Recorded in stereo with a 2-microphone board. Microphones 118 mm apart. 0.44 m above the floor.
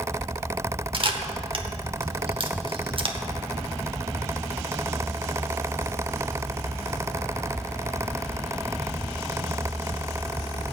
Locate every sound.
0.9 s a camera shutter: 50° right (ahead or behind), 0.9 m